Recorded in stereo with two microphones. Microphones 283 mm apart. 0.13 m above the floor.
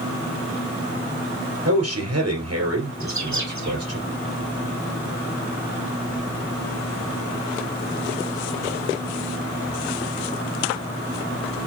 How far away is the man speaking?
About 3 m.